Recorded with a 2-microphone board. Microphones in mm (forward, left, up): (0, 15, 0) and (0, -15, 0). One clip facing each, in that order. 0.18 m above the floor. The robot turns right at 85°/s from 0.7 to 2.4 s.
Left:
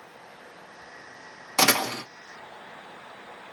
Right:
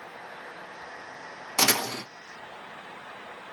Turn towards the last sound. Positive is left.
turn(degrees=105)